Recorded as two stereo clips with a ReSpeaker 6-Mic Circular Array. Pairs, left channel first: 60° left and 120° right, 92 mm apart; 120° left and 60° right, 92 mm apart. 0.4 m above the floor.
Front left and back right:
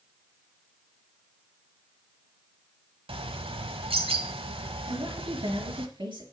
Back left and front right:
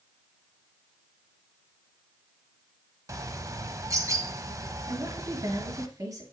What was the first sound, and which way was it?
A bird, 115° right.